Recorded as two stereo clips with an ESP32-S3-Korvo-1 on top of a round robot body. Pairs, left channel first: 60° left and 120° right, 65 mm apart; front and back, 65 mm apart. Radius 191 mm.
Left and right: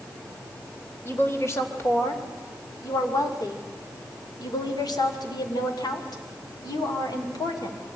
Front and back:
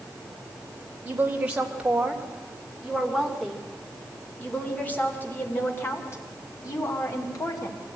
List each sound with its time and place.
1.1 s a woman speaking: 110° left, 3 m; by 7.8 s 35° left, 3.5 m